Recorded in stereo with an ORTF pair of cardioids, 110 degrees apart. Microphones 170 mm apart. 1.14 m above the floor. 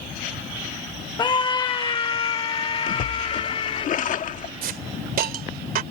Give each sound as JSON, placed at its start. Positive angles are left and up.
{"t": 1.2, "sound": "a scream", "azimuth_deg": 25}
{"t": 2.9, "sound": "a splash", "azimuth_deg": 50}
{"t": 4.6, "sound": "a hiss", "azimuth_deg": -60}